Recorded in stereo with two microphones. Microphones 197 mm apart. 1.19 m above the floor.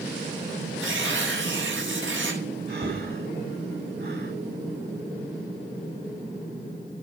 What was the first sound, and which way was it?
Tearing paper, 85° right.